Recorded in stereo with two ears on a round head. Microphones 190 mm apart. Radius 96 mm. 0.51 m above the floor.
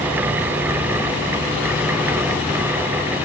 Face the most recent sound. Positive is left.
No sound to turn to.